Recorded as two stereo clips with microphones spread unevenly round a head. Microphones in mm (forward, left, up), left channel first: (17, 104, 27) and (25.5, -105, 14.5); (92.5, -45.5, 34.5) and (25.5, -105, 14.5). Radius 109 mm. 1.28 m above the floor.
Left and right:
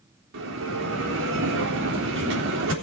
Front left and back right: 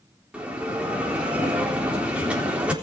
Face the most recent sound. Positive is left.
turn(degrees=-60)